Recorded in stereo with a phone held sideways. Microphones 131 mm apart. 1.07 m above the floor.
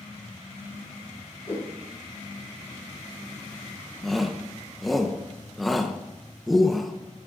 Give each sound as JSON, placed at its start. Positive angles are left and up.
{"t": 1.5, "sound": "a whoosh", "side_deg": 55, "distance_m": 5.5}
{"t": 4.0, "sound": "a shout", "side_deg": 0, "distance_m": 0.8}